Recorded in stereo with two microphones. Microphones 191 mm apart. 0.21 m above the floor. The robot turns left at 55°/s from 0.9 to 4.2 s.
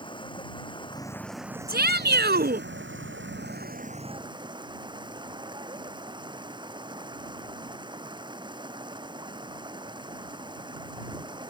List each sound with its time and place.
0.0 s running water: 25° left; by 11.5 s 155° right
1.7 s a shout: 70° right; by 2.7 s 120° right